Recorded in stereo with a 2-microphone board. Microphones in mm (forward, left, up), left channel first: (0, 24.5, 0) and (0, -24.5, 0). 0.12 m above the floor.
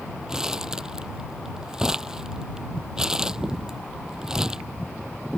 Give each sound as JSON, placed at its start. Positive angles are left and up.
{"t": 0.3, "sound": "crumpling", "side_deg": -15}